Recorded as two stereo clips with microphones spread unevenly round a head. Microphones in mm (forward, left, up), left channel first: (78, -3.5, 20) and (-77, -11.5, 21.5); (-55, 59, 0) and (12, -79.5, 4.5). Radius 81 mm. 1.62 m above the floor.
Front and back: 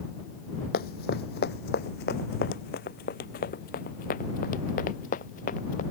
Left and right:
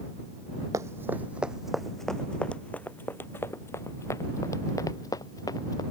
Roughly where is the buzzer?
I don't hear a buzzer.